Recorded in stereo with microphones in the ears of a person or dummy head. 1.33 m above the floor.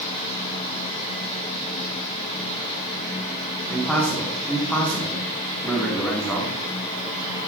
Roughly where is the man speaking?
Centre.